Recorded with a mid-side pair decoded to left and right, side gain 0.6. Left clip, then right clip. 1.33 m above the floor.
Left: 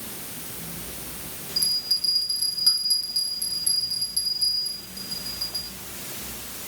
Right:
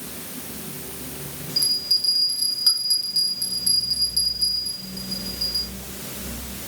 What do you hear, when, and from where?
1.6 s a bell: 20° right, 9 m